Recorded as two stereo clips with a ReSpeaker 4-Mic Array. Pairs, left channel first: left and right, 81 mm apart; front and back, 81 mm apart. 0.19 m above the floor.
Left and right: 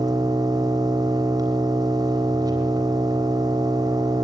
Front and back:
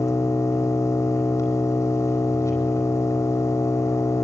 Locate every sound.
0.0 s an engine running: 55° right, 4 m